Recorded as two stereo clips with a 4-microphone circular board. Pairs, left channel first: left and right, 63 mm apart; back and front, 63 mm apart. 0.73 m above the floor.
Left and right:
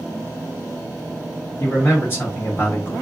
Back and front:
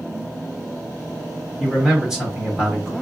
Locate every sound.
1.6 s a man speaking: 75° left, 1.3 m